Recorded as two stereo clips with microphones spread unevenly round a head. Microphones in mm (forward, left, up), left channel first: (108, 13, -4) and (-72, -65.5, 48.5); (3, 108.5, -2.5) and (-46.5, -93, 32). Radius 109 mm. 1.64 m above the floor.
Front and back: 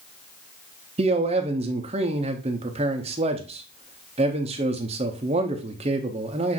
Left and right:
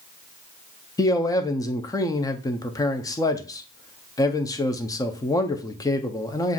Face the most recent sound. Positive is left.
turn(degrees=155)